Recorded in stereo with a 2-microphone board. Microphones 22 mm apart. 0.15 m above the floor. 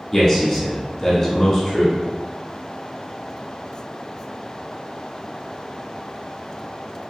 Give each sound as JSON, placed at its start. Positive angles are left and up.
{"t": 0.1, "sound": "a man speaking", "side_deg": 20, "distance_m": 1.4}